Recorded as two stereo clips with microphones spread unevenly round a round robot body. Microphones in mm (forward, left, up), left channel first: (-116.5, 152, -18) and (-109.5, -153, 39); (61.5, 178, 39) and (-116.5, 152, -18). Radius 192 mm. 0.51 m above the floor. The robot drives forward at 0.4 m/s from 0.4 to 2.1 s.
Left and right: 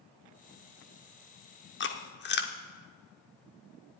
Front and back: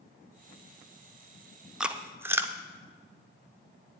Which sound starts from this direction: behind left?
Chewing, at 1.8 s.